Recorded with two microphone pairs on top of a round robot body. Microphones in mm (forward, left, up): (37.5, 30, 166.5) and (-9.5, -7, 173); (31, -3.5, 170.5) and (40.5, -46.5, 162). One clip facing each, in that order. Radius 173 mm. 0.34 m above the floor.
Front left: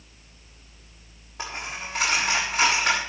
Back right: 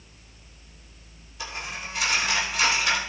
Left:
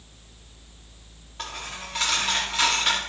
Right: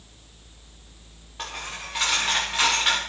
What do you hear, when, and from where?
1.4 s a dropped coin: straight ahead, 6.5 m